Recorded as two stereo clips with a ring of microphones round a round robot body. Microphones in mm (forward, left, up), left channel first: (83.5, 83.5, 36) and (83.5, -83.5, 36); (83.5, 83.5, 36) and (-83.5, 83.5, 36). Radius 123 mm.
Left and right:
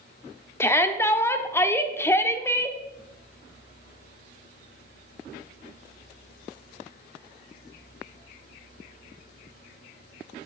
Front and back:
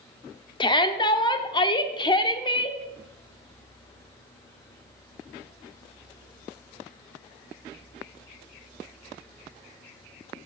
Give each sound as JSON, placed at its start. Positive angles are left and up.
{"t": 0.6, "sound": "a shout", "azimuth_deg": 30, "distance_m": 1.0}